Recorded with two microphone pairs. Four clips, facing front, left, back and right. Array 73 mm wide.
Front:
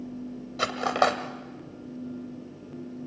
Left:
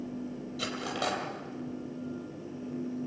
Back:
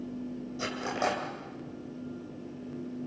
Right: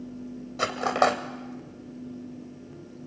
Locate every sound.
0.6 s cutlery clinking: 50° right, 2 m